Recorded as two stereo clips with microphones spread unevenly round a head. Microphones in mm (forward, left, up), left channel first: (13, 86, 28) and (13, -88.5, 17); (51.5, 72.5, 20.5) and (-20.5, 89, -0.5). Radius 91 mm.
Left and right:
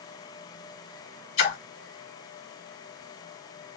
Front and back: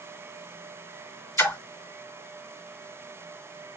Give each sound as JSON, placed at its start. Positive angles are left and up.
{"t": 1.4, "sound": "a splash", "azimuth_deg": 40, "distance_m": 3.0}